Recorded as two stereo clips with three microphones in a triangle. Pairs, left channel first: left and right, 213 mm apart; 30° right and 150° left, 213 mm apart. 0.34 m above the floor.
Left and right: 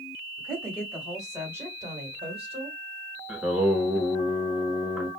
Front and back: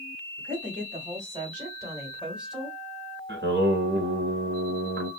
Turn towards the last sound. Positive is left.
turn(degrees=-175)